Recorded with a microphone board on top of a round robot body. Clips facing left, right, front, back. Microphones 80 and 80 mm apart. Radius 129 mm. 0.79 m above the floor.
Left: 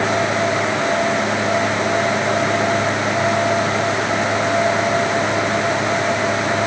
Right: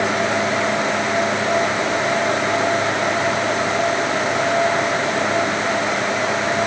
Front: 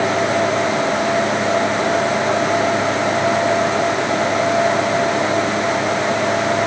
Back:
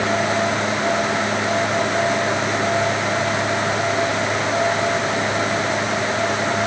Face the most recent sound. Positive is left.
No sound to turn to.